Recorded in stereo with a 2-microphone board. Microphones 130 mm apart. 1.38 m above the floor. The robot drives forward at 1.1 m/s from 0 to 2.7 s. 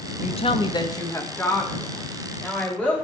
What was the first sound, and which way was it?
A woman speaking, 60° left (ahead or behind).